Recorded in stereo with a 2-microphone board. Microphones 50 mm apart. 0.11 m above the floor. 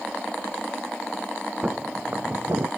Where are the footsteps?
20° right (ahead or behind), 1.2 m; by 2.7 s 75° right (ahead or behind), 0.8 m.